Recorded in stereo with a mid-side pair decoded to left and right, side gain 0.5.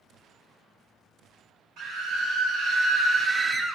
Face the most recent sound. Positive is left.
turn(degrees=-5)